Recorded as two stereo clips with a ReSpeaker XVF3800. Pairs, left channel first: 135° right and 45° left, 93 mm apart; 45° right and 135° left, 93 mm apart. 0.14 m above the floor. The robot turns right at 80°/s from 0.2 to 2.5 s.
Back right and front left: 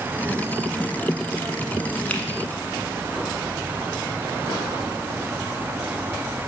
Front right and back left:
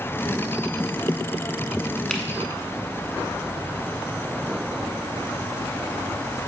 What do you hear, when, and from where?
2.1 s a finger snap: 100° right, 0.9 m; by 2.2 s 90° right, 0.9 m